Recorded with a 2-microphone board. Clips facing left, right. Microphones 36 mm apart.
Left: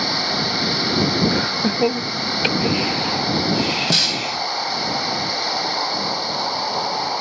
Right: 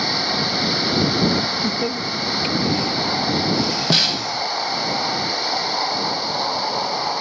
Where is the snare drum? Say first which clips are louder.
Right 1 dB; 10° right (ahead or behind).